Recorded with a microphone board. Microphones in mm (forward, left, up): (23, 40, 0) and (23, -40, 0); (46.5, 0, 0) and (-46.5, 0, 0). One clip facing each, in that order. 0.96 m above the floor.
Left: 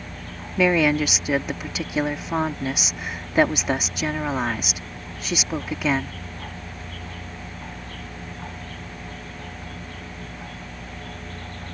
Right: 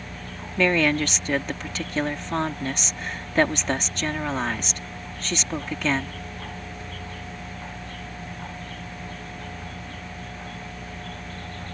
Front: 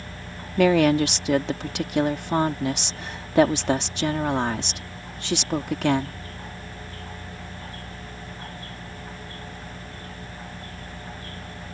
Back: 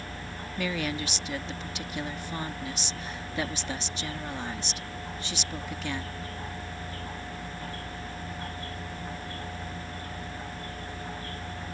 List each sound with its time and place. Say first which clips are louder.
0.6 s a woman speaking: left 2 dB, front 14 dB; 10° left